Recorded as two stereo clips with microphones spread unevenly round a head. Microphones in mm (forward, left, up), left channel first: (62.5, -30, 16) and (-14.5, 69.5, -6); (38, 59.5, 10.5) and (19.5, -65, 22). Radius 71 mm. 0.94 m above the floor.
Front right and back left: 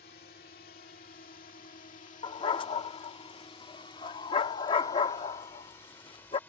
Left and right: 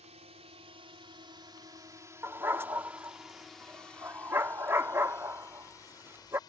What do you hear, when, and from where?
0.0 s a drone: 65° right; by 6.5 s 25° left
2.2 s a dog barking: 35° right